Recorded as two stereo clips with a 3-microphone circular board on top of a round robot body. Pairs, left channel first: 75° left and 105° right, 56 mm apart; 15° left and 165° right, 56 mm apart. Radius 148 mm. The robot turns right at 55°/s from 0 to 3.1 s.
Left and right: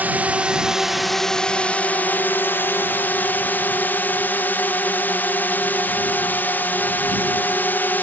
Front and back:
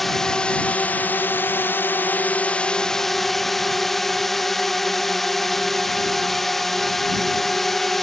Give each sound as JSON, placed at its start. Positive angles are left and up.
{"t": 0.0, "sound": "a drone", "azimuth_deg": -70}